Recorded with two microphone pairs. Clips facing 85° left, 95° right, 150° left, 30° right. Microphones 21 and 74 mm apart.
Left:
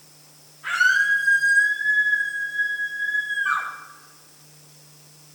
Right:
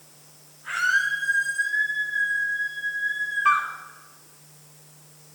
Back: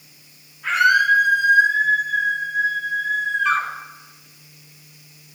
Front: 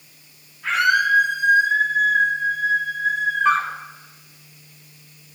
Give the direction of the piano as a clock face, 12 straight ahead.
3 o'clock.